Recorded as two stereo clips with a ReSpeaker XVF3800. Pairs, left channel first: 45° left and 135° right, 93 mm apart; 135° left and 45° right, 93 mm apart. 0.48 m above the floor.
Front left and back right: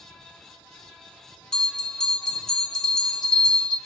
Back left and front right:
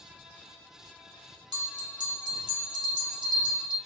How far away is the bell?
About 0.6 m.